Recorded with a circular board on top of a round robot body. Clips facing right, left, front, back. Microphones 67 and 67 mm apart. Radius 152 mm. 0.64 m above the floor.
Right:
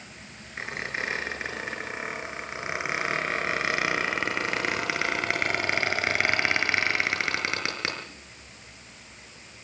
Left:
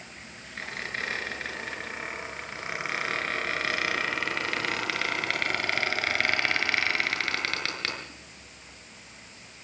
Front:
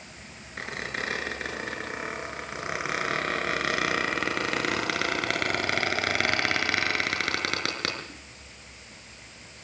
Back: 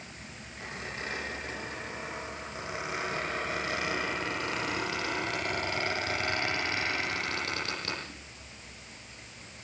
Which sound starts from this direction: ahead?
A squeak, at 0.6 s.